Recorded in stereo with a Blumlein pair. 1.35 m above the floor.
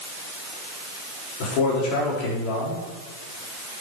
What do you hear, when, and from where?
1.4 s a man speaking: 45° left, 4 m